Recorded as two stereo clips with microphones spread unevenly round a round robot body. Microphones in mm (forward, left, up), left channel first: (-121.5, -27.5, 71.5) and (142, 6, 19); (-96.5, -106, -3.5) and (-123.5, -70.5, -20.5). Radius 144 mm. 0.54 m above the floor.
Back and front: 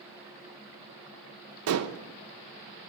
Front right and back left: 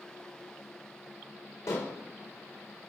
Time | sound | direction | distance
1.7 | dishes clattering | 5° left | 0.7 m